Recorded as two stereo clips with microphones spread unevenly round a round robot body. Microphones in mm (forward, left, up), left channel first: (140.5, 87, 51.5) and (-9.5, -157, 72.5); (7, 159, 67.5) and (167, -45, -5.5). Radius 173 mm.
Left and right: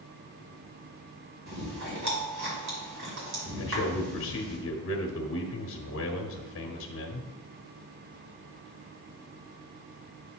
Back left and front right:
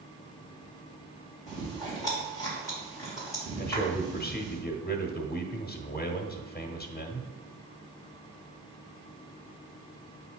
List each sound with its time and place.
1.5 s chewing: 145° right, 2.5 m
3.6 s a man speaking: 70° left, 1.2 m